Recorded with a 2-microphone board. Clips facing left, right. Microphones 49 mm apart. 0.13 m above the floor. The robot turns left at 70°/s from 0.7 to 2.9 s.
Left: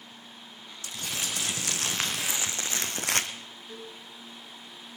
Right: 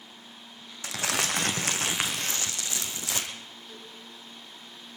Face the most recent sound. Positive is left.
turn(degrees=15)  # may be behind; listen again after turning